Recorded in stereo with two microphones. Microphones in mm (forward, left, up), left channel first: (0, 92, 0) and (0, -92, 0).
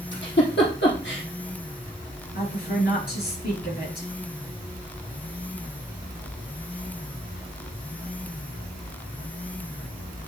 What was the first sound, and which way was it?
A giggle, 80° left.